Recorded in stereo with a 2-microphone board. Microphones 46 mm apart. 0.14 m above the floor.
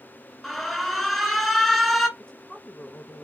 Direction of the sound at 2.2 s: 20° left (ahead or behind).